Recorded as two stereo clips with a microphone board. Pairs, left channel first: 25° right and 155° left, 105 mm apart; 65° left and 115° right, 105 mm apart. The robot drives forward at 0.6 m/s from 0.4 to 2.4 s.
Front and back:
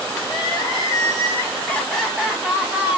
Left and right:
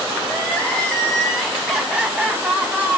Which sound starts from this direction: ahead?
Crying, at 0.2 s.